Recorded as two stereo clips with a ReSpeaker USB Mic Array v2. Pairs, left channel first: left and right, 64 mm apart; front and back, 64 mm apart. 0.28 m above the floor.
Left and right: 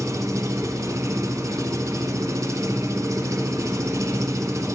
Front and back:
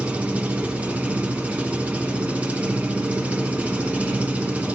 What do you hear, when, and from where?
0.0 s an engine running: 115° right, 1.2 m